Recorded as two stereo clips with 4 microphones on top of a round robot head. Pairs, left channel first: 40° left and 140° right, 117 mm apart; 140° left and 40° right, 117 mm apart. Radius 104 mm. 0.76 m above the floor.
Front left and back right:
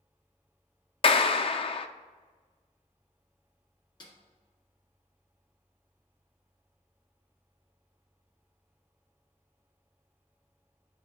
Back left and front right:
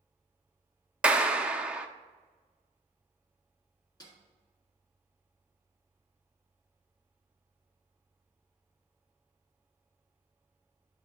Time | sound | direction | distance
1.0 | a clap | 40° left | 0.7 m
4.0 | a snare drum | 90° left | 2 m